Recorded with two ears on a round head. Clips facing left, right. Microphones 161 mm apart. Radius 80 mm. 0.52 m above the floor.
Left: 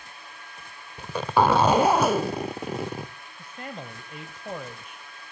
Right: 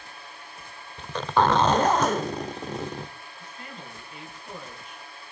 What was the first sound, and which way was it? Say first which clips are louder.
A zipper: left 1 dB; 10° left (ahead or behind).